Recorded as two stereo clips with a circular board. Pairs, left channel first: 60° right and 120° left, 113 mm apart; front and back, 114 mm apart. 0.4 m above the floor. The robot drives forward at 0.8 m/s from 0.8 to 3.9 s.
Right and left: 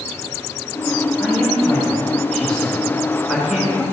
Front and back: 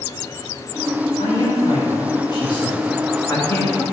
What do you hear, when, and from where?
1.2 s a man speaking: 10° left, 3 m; by 3.9 s 55° left, 1.4 m